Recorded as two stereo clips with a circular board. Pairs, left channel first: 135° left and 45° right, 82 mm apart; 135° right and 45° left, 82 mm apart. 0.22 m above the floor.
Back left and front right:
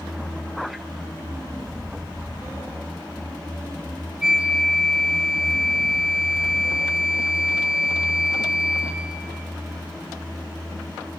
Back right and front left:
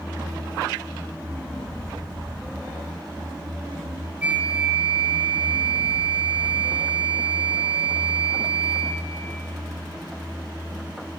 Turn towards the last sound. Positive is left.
turn(degrees=15)